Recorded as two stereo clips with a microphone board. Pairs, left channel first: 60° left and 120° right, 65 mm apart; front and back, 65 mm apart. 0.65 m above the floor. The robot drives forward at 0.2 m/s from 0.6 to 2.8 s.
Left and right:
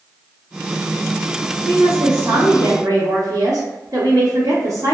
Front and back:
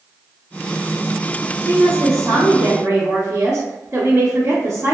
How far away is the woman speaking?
About 1.0 m.